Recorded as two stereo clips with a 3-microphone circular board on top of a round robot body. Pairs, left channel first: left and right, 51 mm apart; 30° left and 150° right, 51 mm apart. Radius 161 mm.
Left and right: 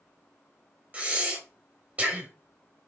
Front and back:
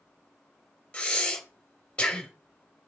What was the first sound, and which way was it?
Breathing, 35° right.